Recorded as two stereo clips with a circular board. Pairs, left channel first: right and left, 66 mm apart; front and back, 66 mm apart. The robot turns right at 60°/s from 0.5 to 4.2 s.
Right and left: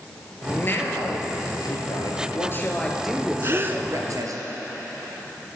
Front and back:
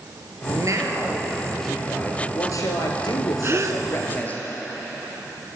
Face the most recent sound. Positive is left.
turn(degrees=180)